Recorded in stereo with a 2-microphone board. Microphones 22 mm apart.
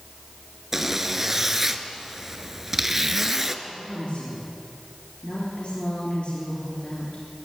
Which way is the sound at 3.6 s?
60° left (ahead or behind).